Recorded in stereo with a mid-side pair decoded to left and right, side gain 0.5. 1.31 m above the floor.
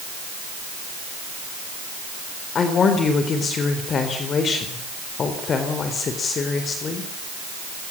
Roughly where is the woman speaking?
Ahead left.